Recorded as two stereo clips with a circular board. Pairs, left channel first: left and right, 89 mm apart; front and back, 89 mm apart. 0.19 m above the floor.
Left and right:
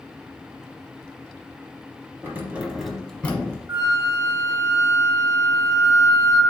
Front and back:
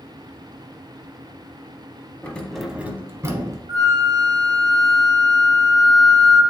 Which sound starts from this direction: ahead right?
Keys jangling, at 2.2 s.